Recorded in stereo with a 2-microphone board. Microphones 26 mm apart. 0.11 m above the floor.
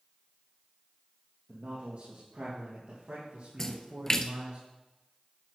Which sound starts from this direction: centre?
A splash, at 3.6 s.